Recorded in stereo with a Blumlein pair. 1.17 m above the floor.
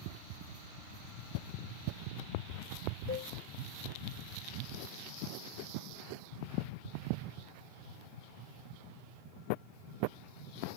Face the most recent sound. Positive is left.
turn(degrees=35)